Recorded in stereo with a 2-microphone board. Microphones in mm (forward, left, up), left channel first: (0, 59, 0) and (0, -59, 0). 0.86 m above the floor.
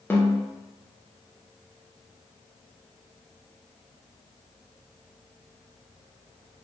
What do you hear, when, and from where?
0.1 s a snare drum: 20° left (ahead or behind), 0.6 m